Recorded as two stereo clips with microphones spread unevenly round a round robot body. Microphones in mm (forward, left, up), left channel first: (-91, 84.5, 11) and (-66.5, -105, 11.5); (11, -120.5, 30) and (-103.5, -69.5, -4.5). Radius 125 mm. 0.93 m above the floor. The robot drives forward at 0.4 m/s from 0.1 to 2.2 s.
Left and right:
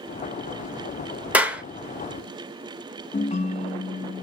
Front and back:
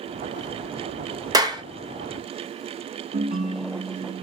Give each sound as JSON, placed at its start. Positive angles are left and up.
{"t": 1.3, "sound": "a clap", "azimuth_deg": -165, "distance_m": 1.0}
{"t": 3.1, "sound": "a ringtone", "azimuth_deg": 155, "distance_m": 0.6}